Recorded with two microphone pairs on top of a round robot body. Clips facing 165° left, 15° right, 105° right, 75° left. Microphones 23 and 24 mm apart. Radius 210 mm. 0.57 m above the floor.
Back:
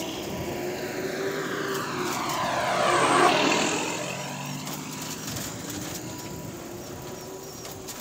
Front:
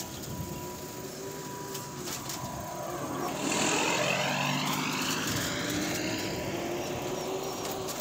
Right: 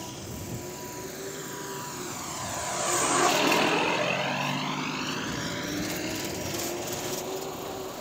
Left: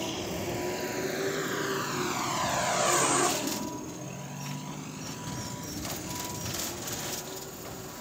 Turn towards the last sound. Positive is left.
turn(degrees=-60)